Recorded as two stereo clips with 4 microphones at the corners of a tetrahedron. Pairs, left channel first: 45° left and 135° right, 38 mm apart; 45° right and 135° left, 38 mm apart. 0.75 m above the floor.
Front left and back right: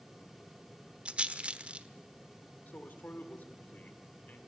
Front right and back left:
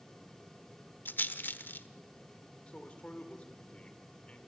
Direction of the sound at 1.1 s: 75° right.